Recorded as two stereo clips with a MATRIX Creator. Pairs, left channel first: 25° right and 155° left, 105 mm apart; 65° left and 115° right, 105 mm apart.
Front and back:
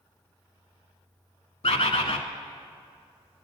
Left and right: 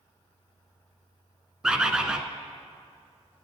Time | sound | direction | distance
1.6 | a bird | 30° right | 0.6 m